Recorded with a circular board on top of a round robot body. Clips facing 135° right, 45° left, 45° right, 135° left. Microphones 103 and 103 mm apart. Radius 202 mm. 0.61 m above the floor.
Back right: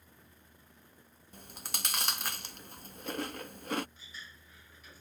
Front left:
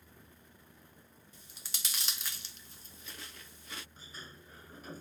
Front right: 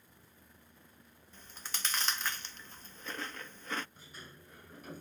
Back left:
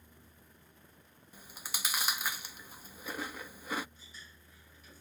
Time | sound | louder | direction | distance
1.3 | chewing | back right 10 dB, back left 1 dB | 145° right | ?
4.0 | a sliding door | front left 1 dB, front right 4 dB | 5° right | ?